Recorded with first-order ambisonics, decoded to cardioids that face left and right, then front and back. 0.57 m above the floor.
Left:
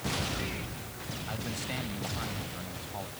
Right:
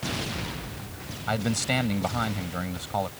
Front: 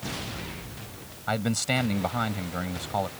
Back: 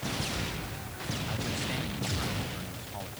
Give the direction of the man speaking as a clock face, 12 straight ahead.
1 o'clock.